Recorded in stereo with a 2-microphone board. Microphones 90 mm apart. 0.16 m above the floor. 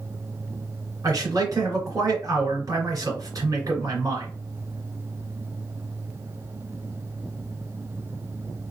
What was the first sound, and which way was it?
A man speaking, 35° right (ahead or behind).